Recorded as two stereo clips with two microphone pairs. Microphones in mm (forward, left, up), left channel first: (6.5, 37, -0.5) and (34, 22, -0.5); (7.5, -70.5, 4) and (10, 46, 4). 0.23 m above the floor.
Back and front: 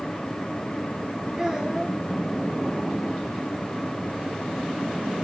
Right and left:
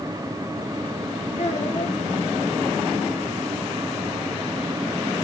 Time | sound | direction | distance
1.4 | a child speaking | 100° right | 3 m